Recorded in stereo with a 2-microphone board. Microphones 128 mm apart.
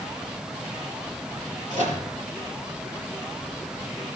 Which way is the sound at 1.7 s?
65° right (ahead or behind).